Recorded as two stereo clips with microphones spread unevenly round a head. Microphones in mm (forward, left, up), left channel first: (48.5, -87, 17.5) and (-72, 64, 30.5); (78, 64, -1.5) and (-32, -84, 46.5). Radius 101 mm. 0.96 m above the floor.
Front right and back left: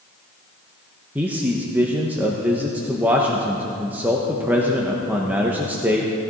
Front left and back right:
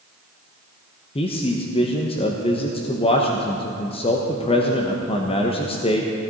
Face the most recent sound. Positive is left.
turn(degrees=45)